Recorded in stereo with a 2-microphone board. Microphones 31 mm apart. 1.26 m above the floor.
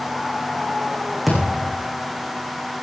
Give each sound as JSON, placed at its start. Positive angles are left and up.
{"t": 1.3, "sound": "a thud", "side_deg": 0, "distance_m": 7.0}